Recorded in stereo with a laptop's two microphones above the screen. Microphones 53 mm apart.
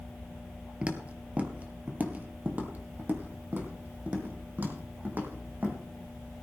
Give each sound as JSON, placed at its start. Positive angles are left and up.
{"t": 0.8, "sound": "footsteps", "side_deg": -25, "distance_m": 1.1}